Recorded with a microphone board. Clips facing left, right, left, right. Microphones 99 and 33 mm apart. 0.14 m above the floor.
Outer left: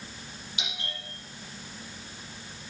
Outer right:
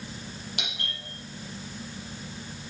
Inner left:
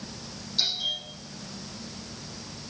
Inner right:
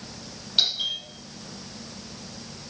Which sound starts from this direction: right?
A doorbell, at 0.6 s.